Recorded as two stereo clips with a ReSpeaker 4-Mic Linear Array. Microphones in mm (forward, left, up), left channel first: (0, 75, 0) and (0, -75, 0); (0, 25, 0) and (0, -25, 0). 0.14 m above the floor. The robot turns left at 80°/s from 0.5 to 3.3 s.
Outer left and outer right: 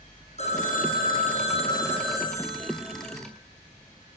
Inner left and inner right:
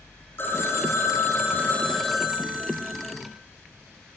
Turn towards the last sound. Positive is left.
turn(degrees=-95)